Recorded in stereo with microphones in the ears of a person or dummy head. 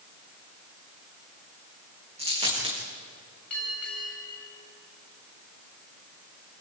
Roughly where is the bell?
Centre.